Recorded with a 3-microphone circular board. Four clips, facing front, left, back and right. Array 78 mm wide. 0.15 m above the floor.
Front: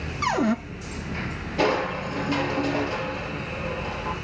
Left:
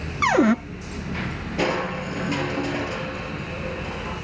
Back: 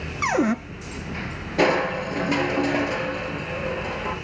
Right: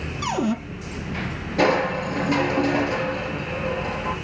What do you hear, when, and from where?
0.2 s a cupboard door: 110° left, 0.7 m
1.6 s crushing: 155° right, 3.5 m